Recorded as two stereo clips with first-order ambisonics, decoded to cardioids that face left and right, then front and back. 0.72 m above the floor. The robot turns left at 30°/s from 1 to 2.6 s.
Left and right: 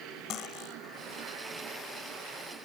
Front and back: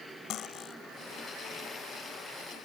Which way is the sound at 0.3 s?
45° left.